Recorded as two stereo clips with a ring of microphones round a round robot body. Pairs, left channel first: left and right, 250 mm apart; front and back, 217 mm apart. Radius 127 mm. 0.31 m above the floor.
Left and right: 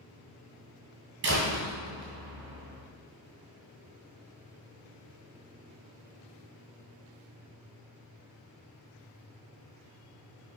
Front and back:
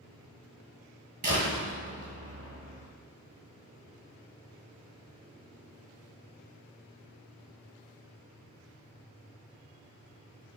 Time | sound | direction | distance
1.2 | a door slam | 130° right | 2 m